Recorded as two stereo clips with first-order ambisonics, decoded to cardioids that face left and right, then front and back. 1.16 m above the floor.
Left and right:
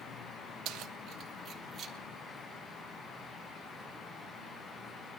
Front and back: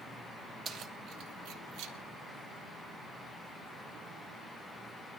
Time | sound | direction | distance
0.7 | keys jangling | 120° right | 1.0 m